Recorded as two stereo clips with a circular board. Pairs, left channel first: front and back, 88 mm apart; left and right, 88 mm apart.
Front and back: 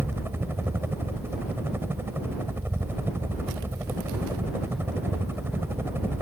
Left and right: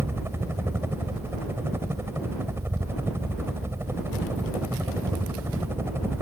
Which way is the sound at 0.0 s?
130° right.